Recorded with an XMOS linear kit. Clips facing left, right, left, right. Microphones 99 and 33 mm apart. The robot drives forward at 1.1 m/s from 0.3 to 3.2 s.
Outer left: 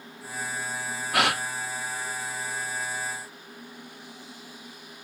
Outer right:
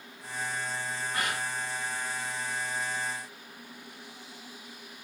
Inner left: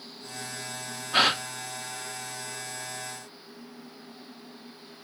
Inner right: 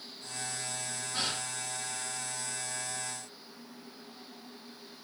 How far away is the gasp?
About 0.6 m.